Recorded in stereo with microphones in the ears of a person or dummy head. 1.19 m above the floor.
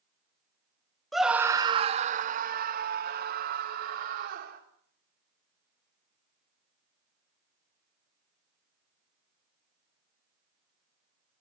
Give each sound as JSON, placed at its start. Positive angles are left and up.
{"t": 1.1, "sound": "a scream", "side_deg": 5, "distance_m": 0.5}